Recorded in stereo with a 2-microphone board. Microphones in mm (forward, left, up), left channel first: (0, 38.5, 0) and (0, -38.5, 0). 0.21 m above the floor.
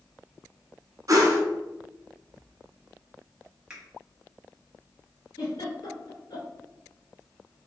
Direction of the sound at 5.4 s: 65° left (ahead or behind).